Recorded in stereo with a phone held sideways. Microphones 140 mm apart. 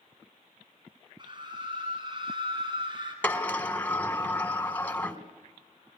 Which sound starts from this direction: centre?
A sliding door, at 3.2 s.